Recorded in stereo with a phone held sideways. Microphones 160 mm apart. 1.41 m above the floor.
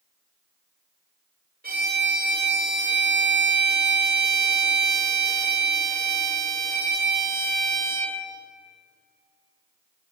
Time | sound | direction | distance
1.6 | a violin | 70° right (ahead or behind) | 0.6 m